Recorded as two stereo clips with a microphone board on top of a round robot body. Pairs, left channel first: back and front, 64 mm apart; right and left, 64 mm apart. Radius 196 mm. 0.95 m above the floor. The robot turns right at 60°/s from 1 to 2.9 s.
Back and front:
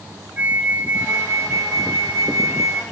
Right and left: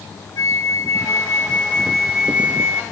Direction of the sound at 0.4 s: 60° right.